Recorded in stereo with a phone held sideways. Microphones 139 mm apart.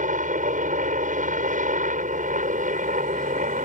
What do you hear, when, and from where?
0.0 s a helicopter: 70° right (ahead or behind)